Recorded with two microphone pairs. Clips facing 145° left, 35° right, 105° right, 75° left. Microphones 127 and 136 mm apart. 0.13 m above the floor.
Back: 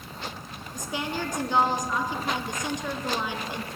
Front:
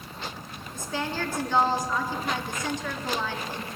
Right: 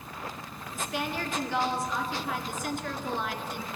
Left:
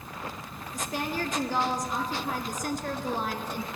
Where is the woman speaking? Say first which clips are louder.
Even, left 1 dB; 80° left, 1.3 m.